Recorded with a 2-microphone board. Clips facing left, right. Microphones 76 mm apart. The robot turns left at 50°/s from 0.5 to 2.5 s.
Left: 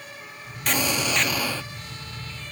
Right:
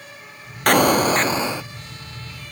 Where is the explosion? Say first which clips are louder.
Right 10 dB; 115° right, 0.5 m; by 1.7 s 165° right, 0.5 m.